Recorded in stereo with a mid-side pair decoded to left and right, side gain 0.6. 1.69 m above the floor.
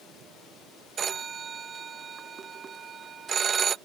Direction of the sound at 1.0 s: 30° right.